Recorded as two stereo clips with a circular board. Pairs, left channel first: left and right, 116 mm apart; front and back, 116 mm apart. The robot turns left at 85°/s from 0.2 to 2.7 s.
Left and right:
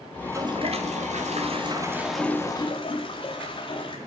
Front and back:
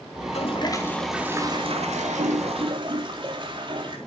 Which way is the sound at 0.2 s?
15° right.